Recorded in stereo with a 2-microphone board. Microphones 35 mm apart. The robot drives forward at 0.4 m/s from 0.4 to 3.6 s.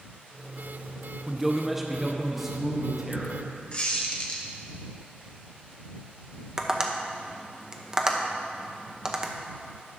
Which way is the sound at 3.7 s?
35° left (ahead or behind).